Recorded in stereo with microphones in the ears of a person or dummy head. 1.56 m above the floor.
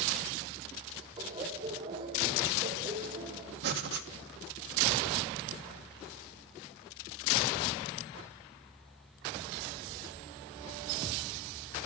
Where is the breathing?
60° right (ahead or behind), 1.3 m.